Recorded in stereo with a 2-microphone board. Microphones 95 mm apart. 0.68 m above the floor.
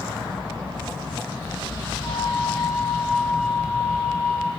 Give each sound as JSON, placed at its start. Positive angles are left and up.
{"t": 2.0, "sound": "a flute", "side_deg": -60, "distance_m": 2.5}